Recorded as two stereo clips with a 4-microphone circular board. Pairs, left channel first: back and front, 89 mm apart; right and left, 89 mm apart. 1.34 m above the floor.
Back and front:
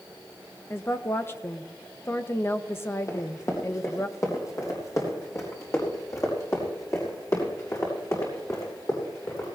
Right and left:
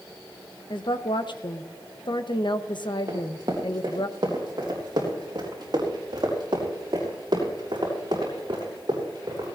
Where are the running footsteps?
130° left, 3.5 m; by 9.4 s 125° left, 7 m.